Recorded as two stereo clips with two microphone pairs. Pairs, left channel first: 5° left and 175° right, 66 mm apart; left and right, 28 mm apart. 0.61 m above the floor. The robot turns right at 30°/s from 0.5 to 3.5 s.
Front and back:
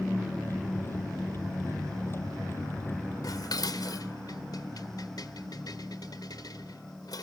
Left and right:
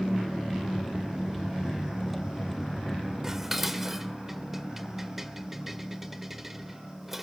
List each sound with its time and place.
3.2 s dishes clattering: 20° right, 1.4 m; by 7.2 s 10° right, 1.4 m